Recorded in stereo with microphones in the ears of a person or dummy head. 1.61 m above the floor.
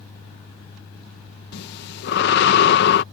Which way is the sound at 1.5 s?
65° left (ahead or behind).